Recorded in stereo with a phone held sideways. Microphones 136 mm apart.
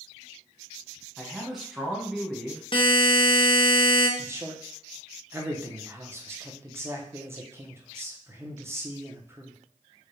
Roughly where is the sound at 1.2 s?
Centre.